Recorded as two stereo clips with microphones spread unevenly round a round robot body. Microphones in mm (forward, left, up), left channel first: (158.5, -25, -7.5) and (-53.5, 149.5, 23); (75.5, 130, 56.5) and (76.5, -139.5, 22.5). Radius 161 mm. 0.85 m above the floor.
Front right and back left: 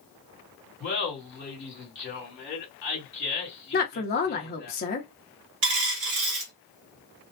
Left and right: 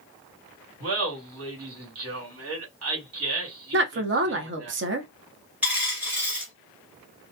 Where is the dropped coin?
Straight behind, 1.0 m.